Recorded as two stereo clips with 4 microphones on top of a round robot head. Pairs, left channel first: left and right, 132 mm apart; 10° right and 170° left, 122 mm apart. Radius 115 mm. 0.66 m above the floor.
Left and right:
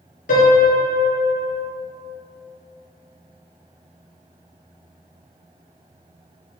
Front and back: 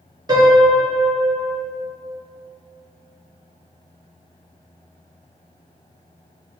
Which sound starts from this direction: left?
A piano, at 0.3 s.